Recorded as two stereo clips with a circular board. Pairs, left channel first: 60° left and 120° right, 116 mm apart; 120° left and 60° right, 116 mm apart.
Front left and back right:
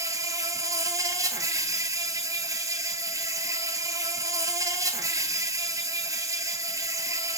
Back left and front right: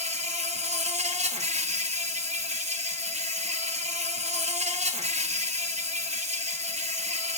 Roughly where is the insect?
Ahead right.